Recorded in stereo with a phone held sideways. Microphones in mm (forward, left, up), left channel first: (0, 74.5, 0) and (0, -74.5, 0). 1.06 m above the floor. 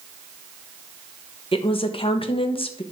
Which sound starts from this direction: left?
A woman speaking, at 1.5 s.